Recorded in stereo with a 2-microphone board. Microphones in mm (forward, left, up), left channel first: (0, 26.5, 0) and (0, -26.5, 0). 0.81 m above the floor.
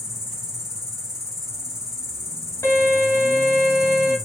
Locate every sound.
0.0 s an insect: 10° right (ahead or behind), 2.5 m
2.6 s a violin: 70° left (ahead or behind), 1.6 m